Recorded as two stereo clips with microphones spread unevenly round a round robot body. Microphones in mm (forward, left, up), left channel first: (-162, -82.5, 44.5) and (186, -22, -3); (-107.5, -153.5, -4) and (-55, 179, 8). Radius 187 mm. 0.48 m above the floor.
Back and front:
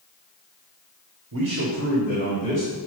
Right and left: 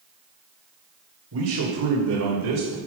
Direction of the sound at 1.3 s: 35° left.